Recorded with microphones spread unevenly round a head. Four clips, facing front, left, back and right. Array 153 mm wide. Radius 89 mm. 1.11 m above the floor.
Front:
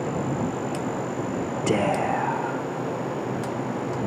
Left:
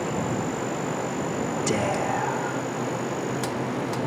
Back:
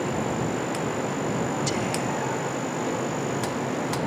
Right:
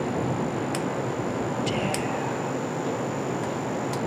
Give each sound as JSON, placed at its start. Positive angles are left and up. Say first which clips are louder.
{"t": 1.7, "sound": "whispering", "louder": "left 2 dB, front 4 dB", "azimuth_deg": 20}